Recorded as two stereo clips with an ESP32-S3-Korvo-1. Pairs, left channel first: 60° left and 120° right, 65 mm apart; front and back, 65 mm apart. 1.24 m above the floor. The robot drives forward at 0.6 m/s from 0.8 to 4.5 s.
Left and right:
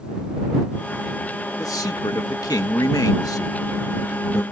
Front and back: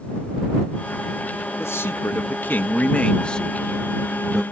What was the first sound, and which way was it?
A man speaking, 45° left.